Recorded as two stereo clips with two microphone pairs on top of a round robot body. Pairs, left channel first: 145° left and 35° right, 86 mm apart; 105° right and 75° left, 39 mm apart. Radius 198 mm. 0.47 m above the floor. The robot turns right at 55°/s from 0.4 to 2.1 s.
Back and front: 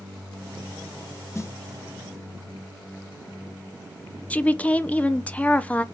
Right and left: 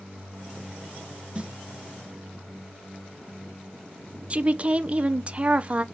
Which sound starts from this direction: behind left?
A snare drum, at 1.4 s.